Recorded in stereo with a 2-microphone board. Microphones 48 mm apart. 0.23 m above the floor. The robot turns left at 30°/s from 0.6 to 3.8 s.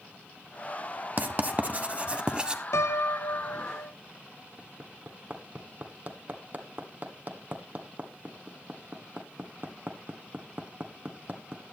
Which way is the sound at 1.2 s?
40° right (ahead or behind).